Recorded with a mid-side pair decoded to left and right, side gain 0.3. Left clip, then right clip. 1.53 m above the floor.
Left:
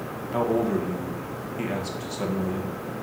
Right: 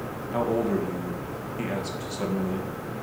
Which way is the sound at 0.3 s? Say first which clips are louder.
Left 1 dB; straight ahead.